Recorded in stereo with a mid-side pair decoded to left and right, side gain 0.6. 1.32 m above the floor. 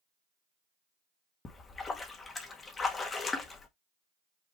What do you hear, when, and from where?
1.4 s a splash: 30° left, 1.4 m